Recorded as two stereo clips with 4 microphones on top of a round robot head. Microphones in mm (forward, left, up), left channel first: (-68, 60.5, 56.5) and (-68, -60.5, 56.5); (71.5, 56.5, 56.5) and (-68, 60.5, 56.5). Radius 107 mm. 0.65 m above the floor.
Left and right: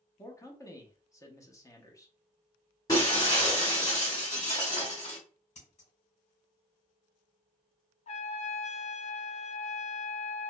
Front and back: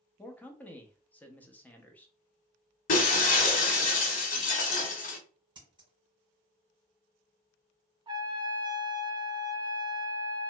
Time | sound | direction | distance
0.2 | a man speaking | 65° left | 0.8 m
2.9 | breaking glass | 20° left | 1.0 m
5.5 | scissors | 120° left | 1.7 m
8.1 | a trumpet | 115° left | 0.6 m